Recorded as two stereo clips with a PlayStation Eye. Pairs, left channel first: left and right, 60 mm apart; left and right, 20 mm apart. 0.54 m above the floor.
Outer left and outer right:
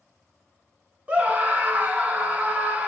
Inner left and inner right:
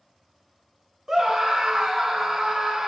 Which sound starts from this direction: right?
A scream, at 1.1 s.